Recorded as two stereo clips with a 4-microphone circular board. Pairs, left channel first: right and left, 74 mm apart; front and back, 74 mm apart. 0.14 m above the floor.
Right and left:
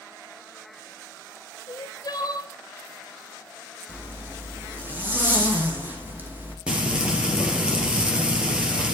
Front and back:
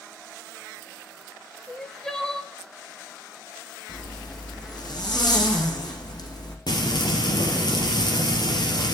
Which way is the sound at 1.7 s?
80° right.